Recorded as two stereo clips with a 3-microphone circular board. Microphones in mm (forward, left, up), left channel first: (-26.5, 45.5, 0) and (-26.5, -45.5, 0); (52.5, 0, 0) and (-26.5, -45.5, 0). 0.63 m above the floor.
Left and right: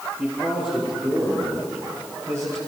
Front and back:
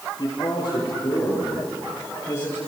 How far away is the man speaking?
About 9.5 m.